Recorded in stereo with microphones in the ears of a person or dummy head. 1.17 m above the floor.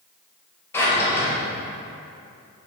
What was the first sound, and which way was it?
A drawer, 10° left (ahead or behind).